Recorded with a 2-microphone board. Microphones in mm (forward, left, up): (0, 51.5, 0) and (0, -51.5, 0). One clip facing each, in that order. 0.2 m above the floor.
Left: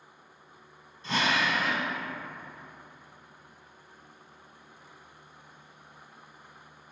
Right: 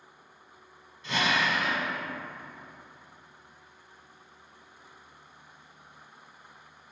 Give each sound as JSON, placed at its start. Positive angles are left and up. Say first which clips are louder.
{"t": 1.0, "sound": "a drill", "louder": "even", "side_deg": 35, "distance_m": 1.2}